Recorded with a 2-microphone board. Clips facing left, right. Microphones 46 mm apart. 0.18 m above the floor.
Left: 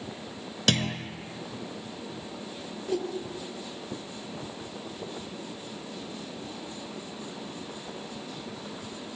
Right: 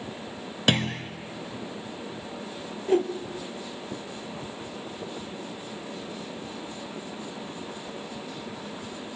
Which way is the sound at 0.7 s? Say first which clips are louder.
Right 2 dB; 20° right (ahead or behind).